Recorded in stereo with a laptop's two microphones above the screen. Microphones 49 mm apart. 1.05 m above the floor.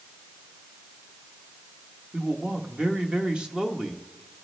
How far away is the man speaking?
About 1.0 m.